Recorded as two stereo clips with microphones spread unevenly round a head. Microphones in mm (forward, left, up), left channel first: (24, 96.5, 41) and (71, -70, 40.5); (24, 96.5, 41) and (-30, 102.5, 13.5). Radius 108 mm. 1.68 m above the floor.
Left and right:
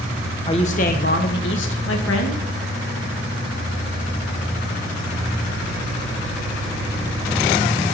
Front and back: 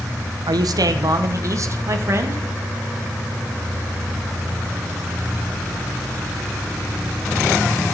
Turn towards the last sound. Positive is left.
turn(degrees=130)